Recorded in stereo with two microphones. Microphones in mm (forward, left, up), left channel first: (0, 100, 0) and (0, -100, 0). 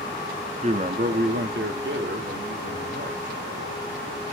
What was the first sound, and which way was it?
A man speaking, 35° right (ahead or behind).